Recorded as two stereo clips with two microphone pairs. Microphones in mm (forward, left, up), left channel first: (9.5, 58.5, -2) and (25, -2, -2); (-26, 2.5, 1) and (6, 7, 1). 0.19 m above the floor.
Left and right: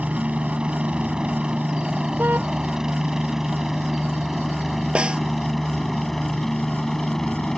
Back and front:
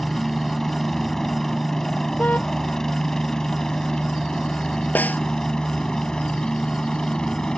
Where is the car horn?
135° right.